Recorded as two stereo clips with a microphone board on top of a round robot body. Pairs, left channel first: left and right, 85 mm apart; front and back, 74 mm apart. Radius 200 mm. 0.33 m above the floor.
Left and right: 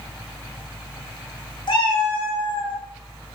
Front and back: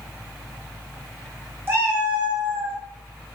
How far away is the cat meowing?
About 1.4 m.